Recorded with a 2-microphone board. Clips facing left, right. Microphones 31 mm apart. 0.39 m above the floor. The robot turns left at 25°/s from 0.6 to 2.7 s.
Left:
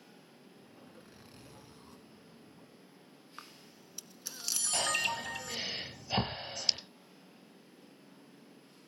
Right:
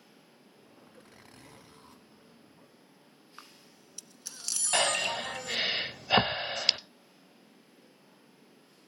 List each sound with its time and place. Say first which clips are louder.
0.9 s a zipper: right 1 dB; 65° right (ahead or behind), 3.5 m
3.4 s a camera shutter: left 1 dB; 5° left (ahead or behind), 0.9 m
4.7 s breathing: right 5 dB; 60° right (ahead or behind), 0.8 m